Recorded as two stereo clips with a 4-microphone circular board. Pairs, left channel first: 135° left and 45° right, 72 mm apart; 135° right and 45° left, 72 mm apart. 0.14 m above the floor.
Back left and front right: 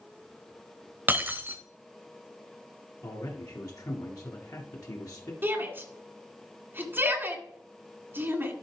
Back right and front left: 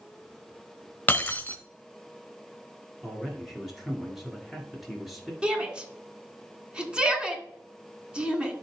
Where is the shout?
20° right, 1.7 m.